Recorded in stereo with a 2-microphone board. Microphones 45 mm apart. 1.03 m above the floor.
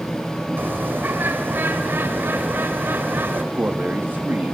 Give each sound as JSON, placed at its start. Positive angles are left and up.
{"t": 0.6, "sound": "a bird", "side_deg": -55, "distance_m": 3.0}
{"t": 3.5, "sound": "a man speaking", "side_deg": -50, "distance_m": 1.9}